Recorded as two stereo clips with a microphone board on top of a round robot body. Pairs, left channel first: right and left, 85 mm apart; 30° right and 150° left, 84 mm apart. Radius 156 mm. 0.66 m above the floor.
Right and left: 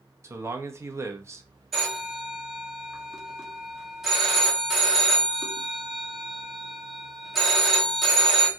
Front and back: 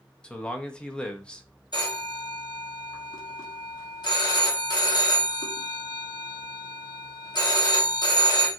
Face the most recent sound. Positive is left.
turn(degrees=0)